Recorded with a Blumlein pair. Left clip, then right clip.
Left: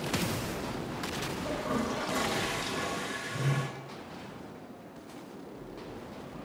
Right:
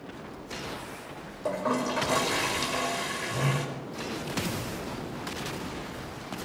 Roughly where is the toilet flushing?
Ahead right.